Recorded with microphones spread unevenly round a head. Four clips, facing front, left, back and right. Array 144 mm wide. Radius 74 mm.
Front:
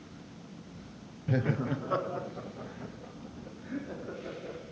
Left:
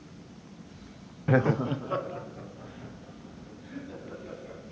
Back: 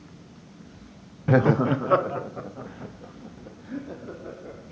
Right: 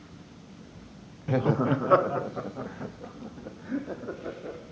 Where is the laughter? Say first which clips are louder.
Even, back 11 dB; 145° left, 0.5 m; by 4.6 s 100° right, 4 m.